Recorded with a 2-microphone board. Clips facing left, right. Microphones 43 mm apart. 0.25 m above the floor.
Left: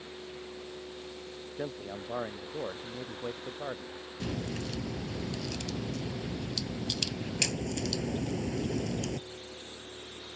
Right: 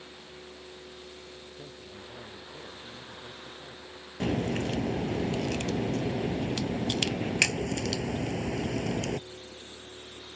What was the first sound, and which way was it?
A man speaking, 85° left.